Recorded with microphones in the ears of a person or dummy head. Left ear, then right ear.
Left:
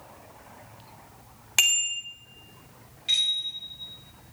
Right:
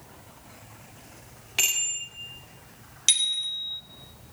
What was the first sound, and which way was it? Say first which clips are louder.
A bicycle bell: left 3 dB; 35° left (ahead or behind).